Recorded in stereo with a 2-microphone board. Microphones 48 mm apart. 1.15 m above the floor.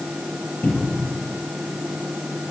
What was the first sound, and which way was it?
A cupboard door, 30° left (ahead or behind).